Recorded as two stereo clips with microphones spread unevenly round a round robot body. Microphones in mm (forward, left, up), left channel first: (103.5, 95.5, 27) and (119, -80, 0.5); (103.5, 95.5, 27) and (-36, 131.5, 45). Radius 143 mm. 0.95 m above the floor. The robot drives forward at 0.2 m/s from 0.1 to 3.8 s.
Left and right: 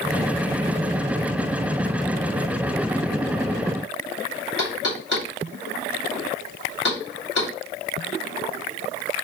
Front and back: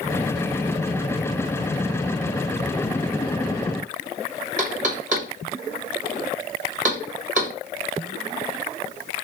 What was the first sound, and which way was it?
Knocking, 135° left.